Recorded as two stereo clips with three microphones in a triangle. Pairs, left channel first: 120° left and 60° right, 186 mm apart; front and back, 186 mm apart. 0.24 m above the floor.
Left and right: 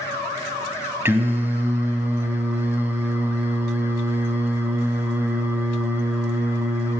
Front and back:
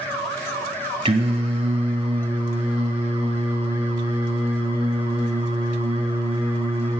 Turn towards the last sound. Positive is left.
turn(degrees=-135)